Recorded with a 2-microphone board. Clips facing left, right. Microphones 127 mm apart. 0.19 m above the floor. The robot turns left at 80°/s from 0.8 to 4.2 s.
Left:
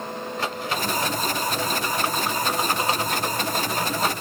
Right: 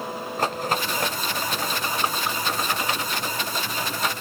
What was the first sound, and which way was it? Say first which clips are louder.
A rattle: right 4 dB; 45° right (ahead or behind).